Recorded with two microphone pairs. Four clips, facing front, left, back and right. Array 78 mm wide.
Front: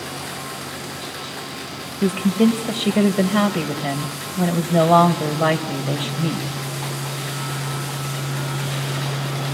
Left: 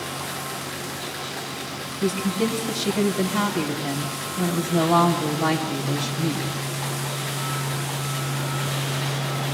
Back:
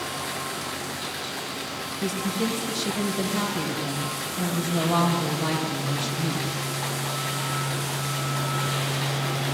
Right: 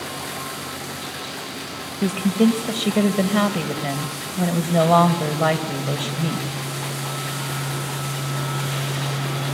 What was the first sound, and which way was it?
A woman speaking, 35° right.